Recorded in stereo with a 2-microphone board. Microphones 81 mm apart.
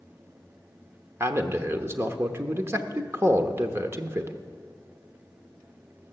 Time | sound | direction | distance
1.2 | a man speaking | 30° right (ahead or behind) | 0.9 m